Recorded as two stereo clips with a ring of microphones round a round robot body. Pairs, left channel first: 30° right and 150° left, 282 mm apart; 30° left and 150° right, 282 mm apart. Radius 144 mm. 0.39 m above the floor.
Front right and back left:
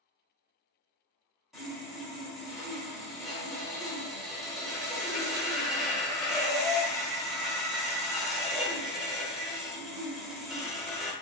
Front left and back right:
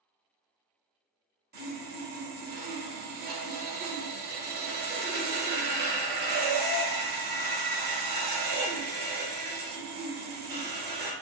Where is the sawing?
120° right, 0.9 m.